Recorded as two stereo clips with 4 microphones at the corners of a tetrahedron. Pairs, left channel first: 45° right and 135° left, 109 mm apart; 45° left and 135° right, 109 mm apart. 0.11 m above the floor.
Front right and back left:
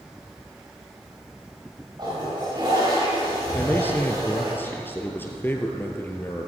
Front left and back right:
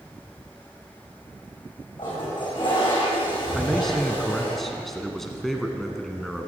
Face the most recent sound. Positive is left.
turn(degrees=-40)